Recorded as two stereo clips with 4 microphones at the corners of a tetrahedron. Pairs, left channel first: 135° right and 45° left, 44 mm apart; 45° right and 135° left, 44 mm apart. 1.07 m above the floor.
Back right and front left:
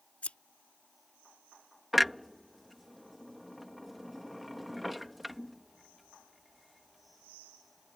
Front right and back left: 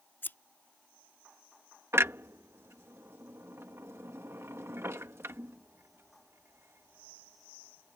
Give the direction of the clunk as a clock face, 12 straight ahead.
8 o'clock.